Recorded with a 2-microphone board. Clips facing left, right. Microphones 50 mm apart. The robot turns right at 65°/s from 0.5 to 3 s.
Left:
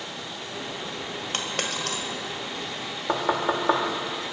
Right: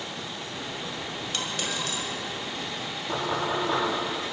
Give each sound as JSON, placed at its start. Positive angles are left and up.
{"t": 1.3, "sound": "a dropped coin", "side_deg": 45, "distance_m": 1.7}
{"t": 3.1, "sound": "knocking", "side_deg": 80, "distance_m": 2.5}